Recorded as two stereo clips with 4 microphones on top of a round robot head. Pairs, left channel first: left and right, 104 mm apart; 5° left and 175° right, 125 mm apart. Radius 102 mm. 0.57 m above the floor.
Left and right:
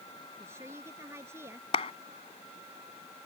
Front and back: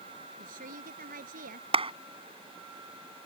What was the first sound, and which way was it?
A woman speaking, 160° right.